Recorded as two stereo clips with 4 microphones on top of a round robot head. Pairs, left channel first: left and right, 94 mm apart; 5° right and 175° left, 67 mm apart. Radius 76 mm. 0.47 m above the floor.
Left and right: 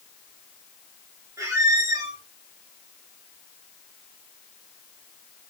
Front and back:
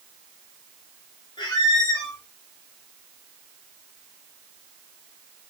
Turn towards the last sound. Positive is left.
turn(degrees=-25)